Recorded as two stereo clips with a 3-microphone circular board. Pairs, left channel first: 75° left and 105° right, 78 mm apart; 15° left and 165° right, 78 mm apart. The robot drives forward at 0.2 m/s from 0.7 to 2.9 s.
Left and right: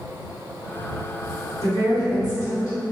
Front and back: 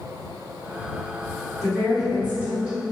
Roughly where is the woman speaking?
Behind left.